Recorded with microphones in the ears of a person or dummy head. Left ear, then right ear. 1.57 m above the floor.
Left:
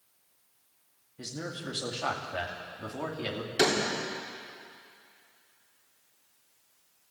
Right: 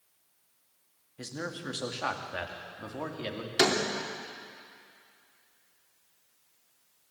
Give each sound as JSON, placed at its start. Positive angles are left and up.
{"t": 1.2, "sound": "a man speaking", "side_deg": -35, "distance_m": 2.5}
{"t": 3.6, "sound": "a door slam", "side_deg": -30, "distance_m": 3.5}